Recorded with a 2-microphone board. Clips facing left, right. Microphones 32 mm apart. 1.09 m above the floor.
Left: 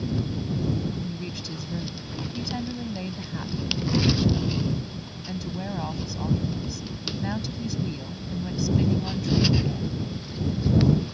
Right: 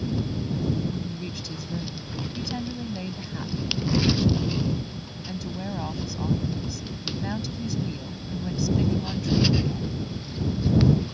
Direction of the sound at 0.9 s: 5° left (ahead or behind).